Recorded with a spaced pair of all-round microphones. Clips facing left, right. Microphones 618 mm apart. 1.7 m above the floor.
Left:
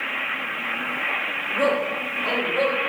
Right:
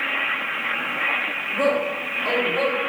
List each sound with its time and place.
1.5 s a man speaking: 30° right (ahead or behind), 0.8 m; by 2.8 s 70° right (ahead or behind), 1.2 m